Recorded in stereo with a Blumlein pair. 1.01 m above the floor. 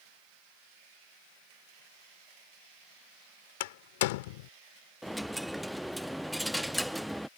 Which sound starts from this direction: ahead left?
A door slam, at 3.6 s.